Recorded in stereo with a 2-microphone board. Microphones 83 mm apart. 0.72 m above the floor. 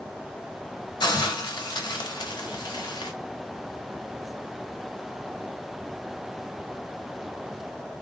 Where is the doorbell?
No doorbell in this recording.